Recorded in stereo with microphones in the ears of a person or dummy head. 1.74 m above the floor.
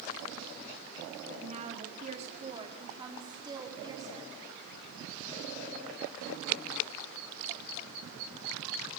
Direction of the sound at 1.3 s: 35° right (ahead or behind).